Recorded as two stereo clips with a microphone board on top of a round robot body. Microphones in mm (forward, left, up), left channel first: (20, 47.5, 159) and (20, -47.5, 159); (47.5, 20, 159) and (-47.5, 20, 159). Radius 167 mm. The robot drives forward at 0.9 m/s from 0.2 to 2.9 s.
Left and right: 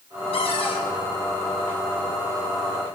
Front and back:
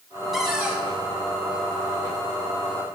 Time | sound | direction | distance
0.3 | a cupboard door | 90° left | 1.8 m